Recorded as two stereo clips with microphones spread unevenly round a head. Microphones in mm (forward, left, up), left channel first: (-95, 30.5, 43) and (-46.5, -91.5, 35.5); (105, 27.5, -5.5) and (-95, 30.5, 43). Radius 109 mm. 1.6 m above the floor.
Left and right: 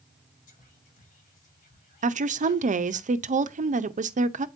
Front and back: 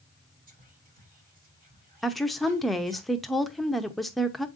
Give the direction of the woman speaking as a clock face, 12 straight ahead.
3 o'clock.